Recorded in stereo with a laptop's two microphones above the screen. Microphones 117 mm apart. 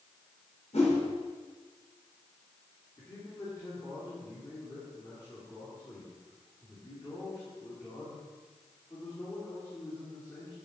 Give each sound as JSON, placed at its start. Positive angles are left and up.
{"t": 0.7, "sound": "a whoosh", "side_deg": 75, "distance_m": 4.0}
{"t": 3.0, "sound": "a man speaking", "side_deg": 25, "distance_m": 2.5}